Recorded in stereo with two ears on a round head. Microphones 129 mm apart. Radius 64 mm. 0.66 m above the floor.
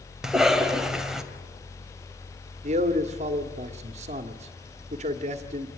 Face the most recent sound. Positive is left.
turn(degrees=-50)  # may be behind; listen again after turning